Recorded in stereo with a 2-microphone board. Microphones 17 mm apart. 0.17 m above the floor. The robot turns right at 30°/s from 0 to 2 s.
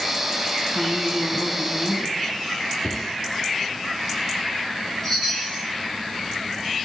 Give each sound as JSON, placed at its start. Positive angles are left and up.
{"t": 0.8, "sound": "a woman speaking", "side_deg": -20, "distance_m": 1.4}
{"t": 2.8, "sound": "a cupboard door", "side_deg": 35, "distance_m": 2.0}
{"t": 5.0, "sound": "a chime", "side_deg": 20, "distance_m": 5.0}